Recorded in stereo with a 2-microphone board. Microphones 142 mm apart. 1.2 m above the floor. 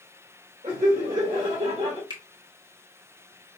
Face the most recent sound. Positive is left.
turn(degrees=-35)  # may be behind; listen again after turning